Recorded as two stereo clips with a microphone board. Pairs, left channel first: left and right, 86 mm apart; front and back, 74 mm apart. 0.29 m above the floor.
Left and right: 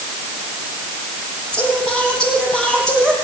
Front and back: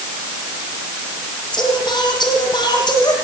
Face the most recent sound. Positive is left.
turn(degrees=10)